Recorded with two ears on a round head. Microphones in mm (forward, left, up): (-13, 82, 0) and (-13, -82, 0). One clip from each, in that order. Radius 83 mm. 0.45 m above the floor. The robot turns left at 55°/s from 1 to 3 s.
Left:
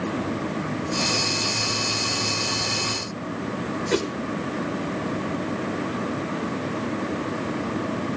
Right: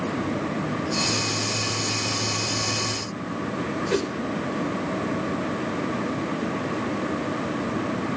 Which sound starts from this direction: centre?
A whoosh, at 3.9 s.